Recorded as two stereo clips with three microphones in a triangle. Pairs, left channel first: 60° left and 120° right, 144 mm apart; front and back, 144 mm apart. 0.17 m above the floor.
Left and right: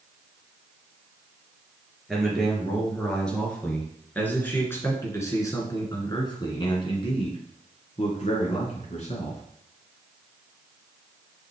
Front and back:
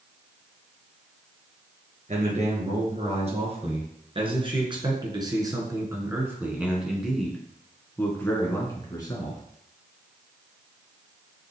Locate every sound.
2.1 s a man speaking: 150° left, 3.5 m; by 9.4 s 55° left, 2.5 m